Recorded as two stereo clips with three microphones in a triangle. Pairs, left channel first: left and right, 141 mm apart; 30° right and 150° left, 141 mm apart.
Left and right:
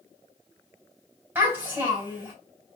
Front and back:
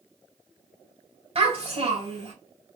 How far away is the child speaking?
About 2.5 m.